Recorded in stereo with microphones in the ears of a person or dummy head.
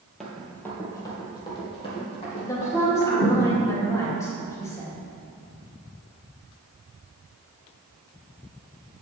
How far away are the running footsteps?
About 1.7 m.